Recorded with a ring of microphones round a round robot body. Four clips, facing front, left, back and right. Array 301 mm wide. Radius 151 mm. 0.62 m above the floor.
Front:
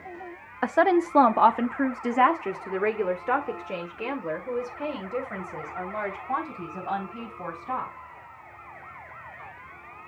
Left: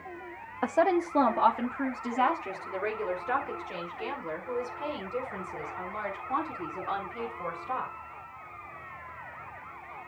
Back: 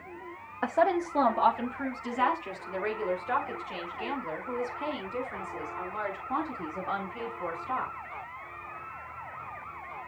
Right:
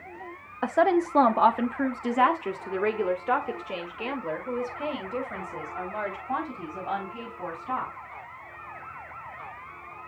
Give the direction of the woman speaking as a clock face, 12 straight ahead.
12 o'clock.